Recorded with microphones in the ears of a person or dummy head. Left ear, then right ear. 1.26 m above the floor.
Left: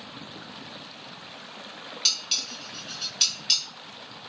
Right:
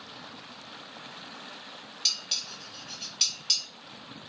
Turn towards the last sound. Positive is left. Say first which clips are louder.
# left 3 dB
turn(degrees=0)  # may be behind; listen again after turning